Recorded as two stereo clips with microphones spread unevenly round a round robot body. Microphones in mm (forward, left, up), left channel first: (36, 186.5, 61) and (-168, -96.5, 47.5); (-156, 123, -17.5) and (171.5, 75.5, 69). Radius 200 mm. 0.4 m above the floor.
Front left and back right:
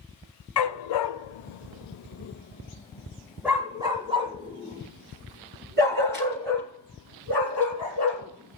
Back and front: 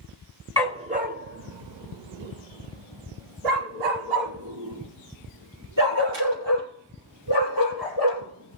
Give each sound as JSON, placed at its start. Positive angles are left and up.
{"t": 0.6, "sound": "a dog barking", "azimuth_deg": 70, "distance_m": 1.3}